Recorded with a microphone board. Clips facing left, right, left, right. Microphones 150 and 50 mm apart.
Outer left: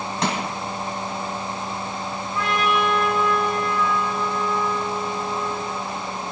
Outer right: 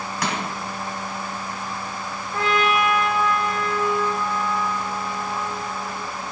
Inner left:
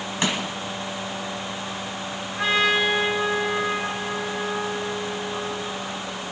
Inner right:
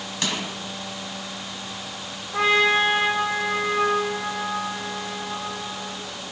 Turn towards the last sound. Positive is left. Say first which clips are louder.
# outer right 2 dB, inner right 2 dB
turn(degrees=-65)  # may be behind; listen again after turning